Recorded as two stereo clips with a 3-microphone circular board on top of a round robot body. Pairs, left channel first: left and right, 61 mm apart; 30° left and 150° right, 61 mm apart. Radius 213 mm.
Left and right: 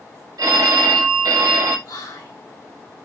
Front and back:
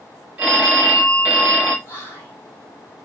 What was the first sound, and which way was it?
A phone ringing, 80° right.